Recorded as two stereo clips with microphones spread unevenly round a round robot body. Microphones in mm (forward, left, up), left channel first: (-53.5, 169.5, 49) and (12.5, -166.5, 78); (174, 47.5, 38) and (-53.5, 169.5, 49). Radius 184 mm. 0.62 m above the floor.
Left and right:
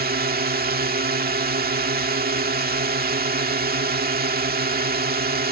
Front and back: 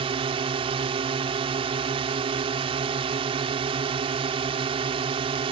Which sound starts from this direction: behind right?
A drone, at 0.0 s.